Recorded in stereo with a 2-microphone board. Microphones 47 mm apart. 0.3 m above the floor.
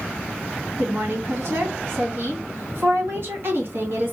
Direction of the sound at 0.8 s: 60° right (ahead or behind).